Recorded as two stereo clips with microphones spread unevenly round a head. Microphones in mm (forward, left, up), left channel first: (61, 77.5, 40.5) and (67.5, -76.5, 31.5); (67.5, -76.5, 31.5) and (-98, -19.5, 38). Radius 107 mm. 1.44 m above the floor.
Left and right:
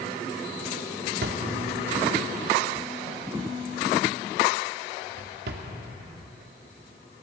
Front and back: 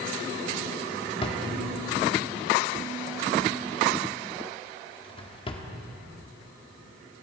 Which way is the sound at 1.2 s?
80° right.